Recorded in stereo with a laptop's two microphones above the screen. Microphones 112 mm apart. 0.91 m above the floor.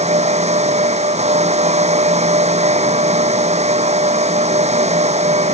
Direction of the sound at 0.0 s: 80° right.